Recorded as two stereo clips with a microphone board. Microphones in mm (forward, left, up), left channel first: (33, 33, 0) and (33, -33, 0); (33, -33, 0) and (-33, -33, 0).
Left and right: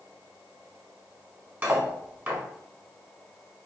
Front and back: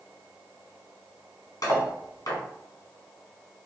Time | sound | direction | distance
1.6 | cutlery clinking | 20° right | 0.9 m